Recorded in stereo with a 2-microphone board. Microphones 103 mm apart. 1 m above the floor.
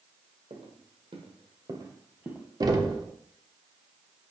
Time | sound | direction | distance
0.5 | footsteps | 65° right (ahead or behind) | 2 m
2.6 | knocking | 35° right (ahead or behind) | 0.9 m